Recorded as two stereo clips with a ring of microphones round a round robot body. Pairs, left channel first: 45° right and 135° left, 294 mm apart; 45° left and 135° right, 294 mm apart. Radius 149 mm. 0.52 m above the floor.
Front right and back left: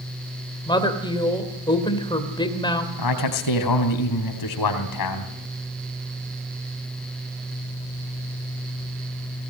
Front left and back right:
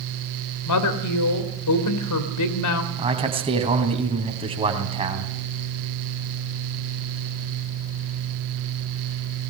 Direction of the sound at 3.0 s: 65° right.